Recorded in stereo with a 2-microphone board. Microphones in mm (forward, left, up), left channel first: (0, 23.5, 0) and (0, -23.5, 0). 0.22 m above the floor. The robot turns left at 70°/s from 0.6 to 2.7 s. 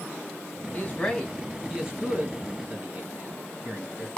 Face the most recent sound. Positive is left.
turn(degrees=-35)  # may be behind; listen again after turning